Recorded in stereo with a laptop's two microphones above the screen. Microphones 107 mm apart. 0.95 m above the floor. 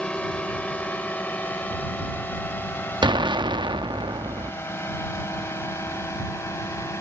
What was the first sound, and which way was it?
A drone, 10° left (ahead or behind).